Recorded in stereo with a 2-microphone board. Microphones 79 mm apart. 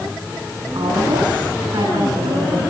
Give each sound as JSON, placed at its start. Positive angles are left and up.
{"t": 0.8, "sound": "a woman speaking", "side_deg": -70, "distance_m": 10.0}